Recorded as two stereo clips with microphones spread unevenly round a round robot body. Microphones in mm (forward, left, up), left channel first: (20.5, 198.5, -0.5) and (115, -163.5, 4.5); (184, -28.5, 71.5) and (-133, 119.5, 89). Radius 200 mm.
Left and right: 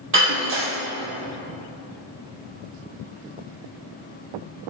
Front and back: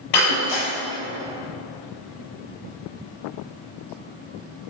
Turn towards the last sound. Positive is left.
turn(degrees=-15)